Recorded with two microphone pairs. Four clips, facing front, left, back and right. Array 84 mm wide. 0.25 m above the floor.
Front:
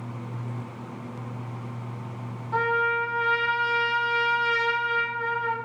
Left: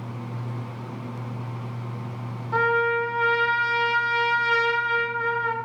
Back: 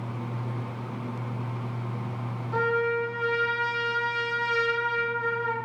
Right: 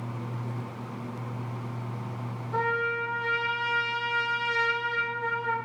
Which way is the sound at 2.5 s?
65° left.